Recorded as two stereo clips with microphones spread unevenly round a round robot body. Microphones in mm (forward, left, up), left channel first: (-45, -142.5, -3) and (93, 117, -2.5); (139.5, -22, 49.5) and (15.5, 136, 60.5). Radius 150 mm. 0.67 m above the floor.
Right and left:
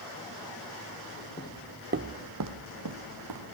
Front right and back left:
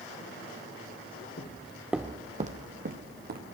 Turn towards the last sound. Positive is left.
turn(degrees=90)